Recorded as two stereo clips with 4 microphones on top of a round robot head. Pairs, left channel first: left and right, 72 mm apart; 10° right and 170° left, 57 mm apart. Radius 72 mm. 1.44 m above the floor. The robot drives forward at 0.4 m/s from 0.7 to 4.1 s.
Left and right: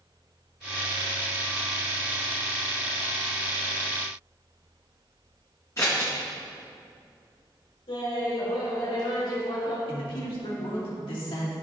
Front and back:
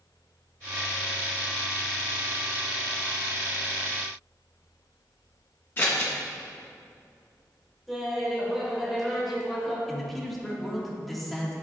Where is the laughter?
80° left, 3 m.